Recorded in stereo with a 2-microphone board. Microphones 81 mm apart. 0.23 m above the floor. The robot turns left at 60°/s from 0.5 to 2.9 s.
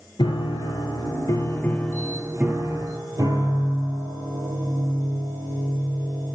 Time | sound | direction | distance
0.2 | a piano | 90° left | 1.1 m